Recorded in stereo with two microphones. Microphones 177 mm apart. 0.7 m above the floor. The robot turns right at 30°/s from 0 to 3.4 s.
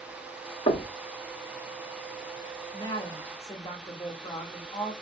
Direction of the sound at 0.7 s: 35° left (ahead or behind).